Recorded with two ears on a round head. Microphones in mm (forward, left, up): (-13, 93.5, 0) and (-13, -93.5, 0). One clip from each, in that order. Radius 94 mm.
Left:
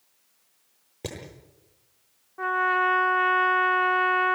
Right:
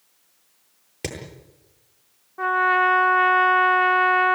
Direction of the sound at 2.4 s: 5° right (ahead or behind).